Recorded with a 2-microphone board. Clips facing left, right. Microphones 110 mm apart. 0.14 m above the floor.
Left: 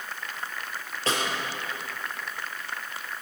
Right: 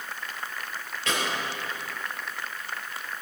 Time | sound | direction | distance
1.1 | a snare drum | 35° left (ahead or behind) | 4 m